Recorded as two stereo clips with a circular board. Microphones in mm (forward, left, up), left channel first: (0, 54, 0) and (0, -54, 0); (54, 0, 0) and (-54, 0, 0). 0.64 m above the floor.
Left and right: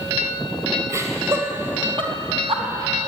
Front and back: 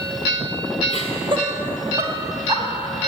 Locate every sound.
0.9 s laughter: 155° right, 2.5 m; by 2.6 s 115° right, 3.5 m